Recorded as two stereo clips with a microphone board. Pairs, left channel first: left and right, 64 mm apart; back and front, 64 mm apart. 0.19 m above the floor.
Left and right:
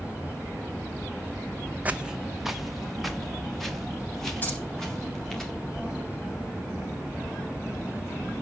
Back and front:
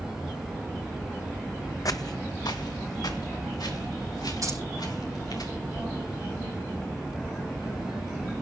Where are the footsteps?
155° right, 0.6 m; by 5.4 s 175° left, 5.5 m.